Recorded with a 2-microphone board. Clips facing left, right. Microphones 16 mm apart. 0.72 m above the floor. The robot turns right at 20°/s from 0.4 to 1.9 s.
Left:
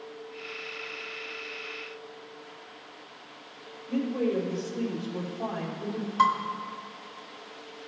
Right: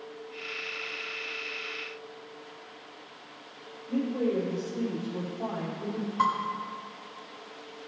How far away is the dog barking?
No dog barking in this recording.